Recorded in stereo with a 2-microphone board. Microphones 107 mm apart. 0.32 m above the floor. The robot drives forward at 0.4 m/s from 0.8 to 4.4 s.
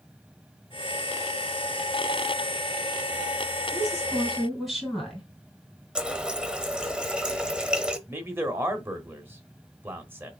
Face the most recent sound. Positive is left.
turn(degrees=-20)  # may be behind; listen again after turning